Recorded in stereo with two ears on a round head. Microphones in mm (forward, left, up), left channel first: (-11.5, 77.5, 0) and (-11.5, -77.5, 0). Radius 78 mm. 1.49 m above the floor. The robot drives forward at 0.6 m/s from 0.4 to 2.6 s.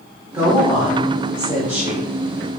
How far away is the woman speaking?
About 1.5 m.